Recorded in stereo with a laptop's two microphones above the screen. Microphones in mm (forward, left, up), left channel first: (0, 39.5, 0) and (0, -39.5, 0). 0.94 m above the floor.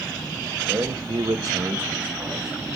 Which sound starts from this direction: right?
A man speaking, at 0.7 s.